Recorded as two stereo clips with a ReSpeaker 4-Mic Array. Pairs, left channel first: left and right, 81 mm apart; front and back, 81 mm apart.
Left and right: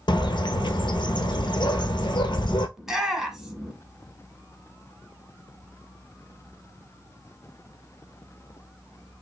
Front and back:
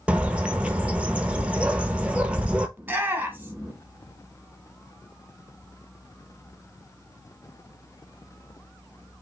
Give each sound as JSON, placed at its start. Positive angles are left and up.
{"t": 0.1, "sound": "a bird", "azimuth_deg": 105, "distance_m": 0.6}
{"t": 2.8, "sound": "a shout", "azimuth_deg": -165, "distance_m": 1.2}